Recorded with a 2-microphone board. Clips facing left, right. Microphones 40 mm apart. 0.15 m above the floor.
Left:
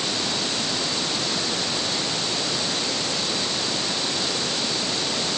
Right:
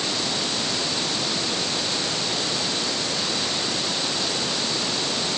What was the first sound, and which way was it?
Only background noise.